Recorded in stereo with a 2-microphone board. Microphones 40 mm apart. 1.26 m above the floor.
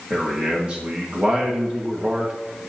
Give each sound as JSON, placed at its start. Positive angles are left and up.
{"t": 0.1, "sound": "a man speaking", "side_deg": -30, "distance_m": 1.9}